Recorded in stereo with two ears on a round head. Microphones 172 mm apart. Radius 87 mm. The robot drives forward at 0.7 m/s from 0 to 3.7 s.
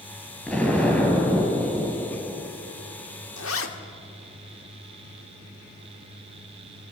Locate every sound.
0.5 s an explosion: 10° left (ahead or behind), 4.5 m; by 2.5 s 15° left (ahead or behind), 3 m
3.4 s a zipper: 70° left (ahead or behind), 1.9 m; by 3.7 s 75° left (ahead or behind), 1.8 m